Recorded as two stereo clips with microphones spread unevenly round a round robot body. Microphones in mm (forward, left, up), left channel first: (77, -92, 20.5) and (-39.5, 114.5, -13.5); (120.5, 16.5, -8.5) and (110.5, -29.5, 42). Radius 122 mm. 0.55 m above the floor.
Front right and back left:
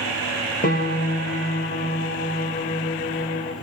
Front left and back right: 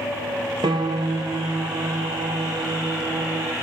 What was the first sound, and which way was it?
A piano, 120° right.